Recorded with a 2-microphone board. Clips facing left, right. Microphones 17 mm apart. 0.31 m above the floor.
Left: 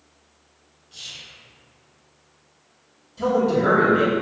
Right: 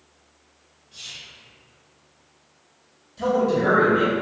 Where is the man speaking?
Centre (ahead or behind), 1.3 m.